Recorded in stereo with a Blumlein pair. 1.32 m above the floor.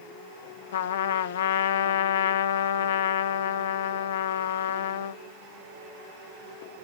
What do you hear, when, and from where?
0.7 s a trumpet: 60° left, 0.6 m